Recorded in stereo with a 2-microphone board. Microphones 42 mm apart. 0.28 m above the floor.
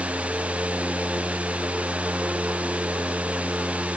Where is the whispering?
I don't hear whispering.